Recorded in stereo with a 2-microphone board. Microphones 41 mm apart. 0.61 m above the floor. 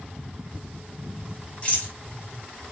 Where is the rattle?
30° left (ahead or behind), 3.5 m.